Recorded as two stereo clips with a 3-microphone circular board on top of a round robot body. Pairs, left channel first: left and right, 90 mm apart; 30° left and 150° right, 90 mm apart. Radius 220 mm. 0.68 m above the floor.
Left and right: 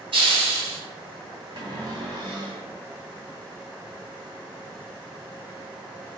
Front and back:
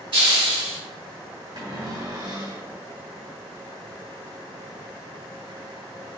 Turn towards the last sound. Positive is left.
turn(degrees=-120)